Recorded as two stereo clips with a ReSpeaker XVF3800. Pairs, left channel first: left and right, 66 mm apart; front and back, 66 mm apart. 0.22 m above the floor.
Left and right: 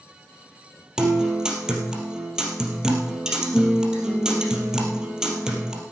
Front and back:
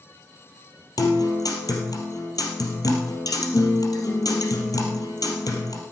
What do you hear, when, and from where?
1.0 s a guitar: 10° right, 3 m